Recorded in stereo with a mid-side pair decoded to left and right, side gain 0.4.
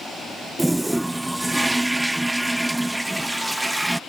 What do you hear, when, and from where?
0.6 s a toilet flushing: 10° right